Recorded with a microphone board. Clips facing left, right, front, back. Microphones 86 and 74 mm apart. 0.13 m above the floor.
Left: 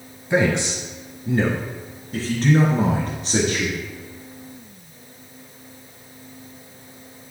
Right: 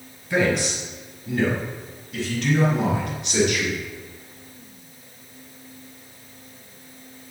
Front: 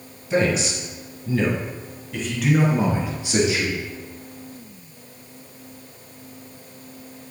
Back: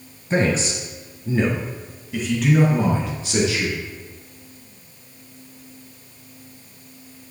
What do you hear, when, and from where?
0.3 s a man speaking: 150° left, 2.5 m; by 3.8 s 55° left, 2.5 m